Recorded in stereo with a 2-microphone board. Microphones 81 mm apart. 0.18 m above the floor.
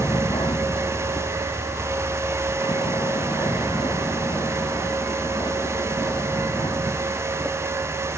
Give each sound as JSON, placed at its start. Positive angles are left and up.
{"t": 0.0, "sound": "a vehicle", "side_deg": 75}